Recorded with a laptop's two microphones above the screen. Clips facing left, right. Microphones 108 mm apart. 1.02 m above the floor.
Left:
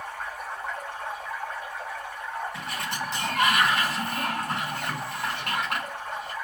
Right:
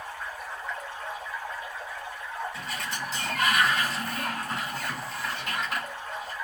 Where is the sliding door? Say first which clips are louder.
Left 2 dB; 70° left (ahead or behind), 3 m.